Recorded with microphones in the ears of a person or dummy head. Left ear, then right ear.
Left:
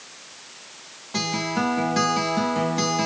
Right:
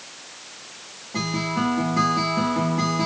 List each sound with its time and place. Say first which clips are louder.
1.1 s a guitar: left 1 dB; 70° left (ahead or behind), 1.6 m